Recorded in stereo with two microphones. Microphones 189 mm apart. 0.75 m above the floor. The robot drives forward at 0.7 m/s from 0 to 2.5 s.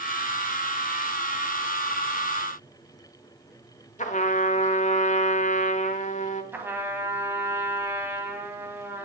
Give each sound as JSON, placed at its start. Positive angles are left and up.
{"t": 4.0, "sound": "a trumpet", "side_deg": 40, "distance_m": 0.9}
{"t": 6.5, "sound": "a trumpet", "side_deg": -10, "distance_m": 1.7}